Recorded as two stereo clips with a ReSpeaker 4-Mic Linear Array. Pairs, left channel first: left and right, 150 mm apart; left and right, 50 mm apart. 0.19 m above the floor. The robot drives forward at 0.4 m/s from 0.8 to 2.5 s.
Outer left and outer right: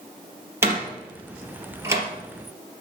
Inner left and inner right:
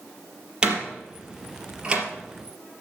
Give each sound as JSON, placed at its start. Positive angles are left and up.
{"t": 0.6, "sound": "a door slam", "side_deg": -15, "distance_m": 3.5}